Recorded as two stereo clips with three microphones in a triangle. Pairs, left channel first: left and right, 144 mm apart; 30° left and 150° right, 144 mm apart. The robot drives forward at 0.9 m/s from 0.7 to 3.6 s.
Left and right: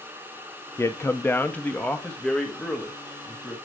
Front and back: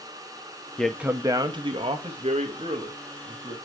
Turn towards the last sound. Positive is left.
turn(degrees=175)